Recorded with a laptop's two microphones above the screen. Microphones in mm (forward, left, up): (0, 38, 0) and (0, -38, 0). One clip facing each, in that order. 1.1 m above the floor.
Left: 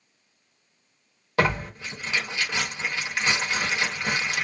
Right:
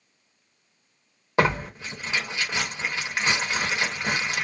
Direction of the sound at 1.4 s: 20° right (ahead or behind).